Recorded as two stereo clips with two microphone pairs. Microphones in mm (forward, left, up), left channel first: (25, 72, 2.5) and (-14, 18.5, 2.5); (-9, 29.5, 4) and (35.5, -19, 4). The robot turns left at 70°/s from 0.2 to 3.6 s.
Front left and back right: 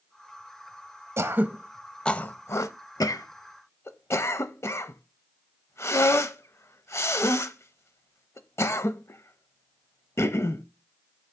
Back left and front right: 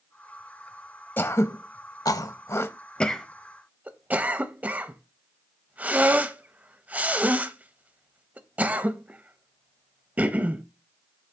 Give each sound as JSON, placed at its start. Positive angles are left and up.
{"t": 1.2, "sound": "throat clearing", "azimuth_deg": -175, "distance_m": 0.6}